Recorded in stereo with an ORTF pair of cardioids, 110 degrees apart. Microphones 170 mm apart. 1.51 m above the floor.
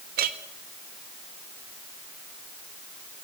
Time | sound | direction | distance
0.2 | a clink | 65° right | 1.8 m